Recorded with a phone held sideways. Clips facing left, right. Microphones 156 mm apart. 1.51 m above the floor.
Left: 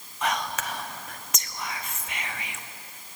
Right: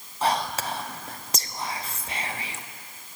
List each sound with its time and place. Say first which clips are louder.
0.2 s whispering: right 3 dB; 35° right (ahead or behind), 0.6 m